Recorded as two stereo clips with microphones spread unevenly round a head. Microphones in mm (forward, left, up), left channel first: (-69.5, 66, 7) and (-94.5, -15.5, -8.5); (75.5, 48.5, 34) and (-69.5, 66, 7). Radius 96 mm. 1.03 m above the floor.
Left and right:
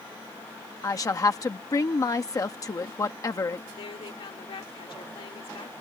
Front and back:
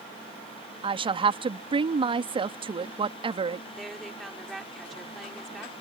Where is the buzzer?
I don't hear a buzzer.